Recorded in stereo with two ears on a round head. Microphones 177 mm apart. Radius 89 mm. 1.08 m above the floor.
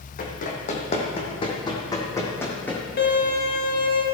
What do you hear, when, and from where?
0.2 s running footsteps: 40° left (ahead or behind), 2 m; by 2.8 s 5° left (ahead or behind), 2.5 m
3.0 s a violin: 50° left (ahead or behind), 2.0 m